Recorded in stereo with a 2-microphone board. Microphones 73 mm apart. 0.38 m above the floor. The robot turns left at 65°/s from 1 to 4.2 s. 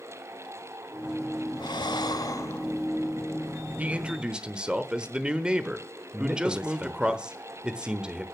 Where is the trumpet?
No trumpet in this recording.